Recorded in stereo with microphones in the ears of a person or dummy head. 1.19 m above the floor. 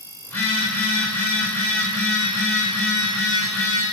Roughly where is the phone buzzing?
Centre.